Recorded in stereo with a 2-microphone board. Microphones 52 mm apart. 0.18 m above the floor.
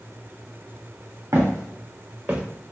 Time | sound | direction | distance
1.3 | footsteps | 85° right | 1.5 m